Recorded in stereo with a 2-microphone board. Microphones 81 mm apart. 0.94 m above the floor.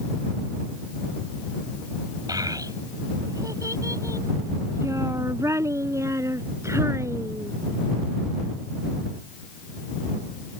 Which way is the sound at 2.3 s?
50° right (ahead or behind).